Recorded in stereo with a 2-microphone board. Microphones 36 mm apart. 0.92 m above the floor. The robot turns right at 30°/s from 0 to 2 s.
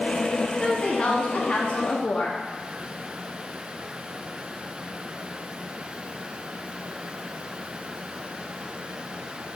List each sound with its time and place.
0.6 s a woman speaking: 40° left, 0.8 m; by 2.4 s 85° left, 0.8 m